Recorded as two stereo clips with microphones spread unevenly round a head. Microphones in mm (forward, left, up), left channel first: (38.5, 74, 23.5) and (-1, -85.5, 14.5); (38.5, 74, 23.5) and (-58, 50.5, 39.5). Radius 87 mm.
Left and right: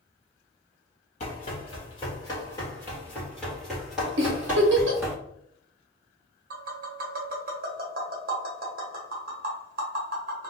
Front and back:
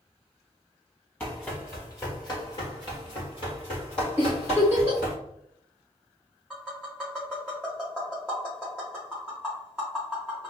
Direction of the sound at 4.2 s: 90° right.